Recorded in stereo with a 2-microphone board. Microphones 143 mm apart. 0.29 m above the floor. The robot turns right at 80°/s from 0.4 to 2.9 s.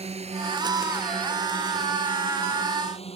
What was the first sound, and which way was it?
A drone, 45° right (ahead or behind).